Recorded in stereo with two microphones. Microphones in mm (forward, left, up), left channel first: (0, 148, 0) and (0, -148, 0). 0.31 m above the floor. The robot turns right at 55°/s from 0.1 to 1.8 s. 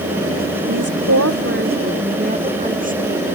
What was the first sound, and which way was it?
A woman speaking, 90° right.